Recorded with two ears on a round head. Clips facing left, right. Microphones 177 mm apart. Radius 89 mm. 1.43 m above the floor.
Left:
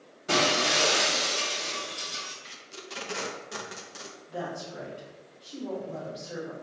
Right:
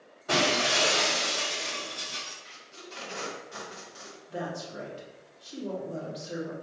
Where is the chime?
No chime in this recording.